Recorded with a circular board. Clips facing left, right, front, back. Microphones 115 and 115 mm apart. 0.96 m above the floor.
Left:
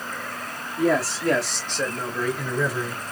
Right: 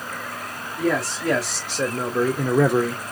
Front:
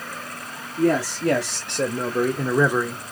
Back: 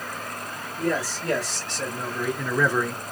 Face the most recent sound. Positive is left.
turn(degrees=-90)